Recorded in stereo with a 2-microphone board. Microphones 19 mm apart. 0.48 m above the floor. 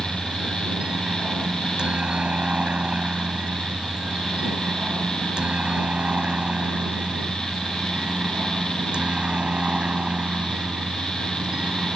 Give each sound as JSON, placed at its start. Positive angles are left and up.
{"t": 0.0, "sound": "a helicopter", "side_deg": -55}